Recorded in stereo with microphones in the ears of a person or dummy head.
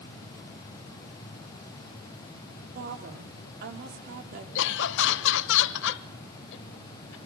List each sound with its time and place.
2.8 s a woman speaking: 55° right (ahead or behind), 4 m
4.5 s laughter: 70° left (ahead or behind), 1.1 m